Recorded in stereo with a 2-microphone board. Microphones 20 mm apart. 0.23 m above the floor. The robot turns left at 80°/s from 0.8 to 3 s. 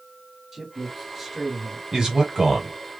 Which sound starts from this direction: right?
A man speaking, at 1.9 s.